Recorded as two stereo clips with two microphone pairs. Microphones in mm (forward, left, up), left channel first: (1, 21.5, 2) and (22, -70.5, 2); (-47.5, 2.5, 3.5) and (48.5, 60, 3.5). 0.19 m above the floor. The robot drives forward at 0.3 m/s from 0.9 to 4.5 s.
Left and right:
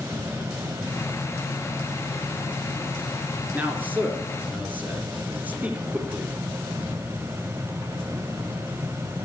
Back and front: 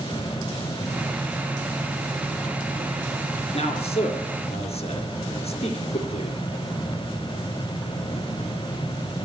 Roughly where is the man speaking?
Behind right.